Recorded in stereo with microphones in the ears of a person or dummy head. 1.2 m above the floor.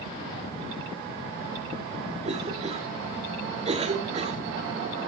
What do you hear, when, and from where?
2.2 s a cough: 40° right (ahead or behind), 3 m